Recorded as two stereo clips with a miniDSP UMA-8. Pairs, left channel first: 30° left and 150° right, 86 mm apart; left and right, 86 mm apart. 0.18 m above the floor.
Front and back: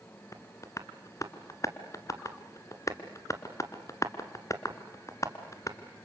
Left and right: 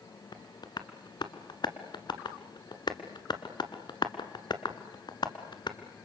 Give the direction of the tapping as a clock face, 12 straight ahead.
10 o'clock.